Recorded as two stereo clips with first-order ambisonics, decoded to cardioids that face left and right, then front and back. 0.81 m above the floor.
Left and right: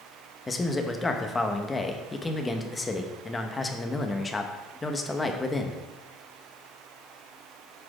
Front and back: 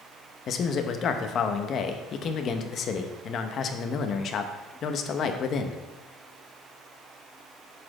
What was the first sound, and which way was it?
A man speaking, 20° left.